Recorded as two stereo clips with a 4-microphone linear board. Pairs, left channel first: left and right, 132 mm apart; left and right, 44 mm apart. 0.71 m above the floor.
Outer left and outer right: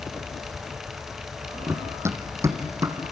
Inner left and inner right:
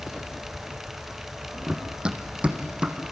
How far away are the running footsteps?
About 1.3 m.